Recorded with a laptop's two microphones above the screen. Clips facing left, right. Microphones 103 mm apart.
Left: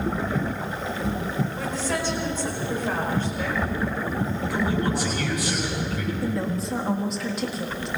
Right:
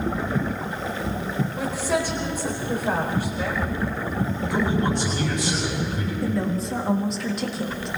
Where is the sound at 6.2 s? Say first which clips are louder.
Right 5 dB; centre (ahead or behind), 1.9 m.